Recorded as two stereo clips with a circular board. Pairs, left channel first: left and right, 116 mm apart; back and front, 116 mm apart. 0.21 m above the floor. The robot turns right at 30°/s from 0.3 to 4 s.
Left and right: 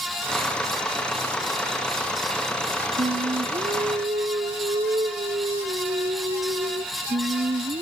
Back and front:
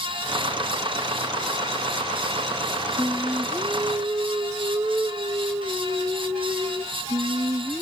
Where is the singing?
100° right, 0.8 m; by 7.8 s 70° right, 0.8 m.